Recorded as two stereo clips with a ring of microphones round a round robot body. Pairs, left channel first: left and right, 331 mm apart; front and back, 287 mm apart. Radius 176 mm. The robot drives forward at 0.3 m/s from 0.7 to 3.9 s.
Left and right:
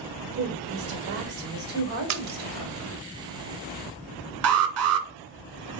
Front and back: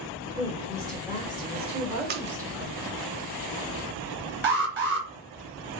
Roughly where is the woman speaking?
Right.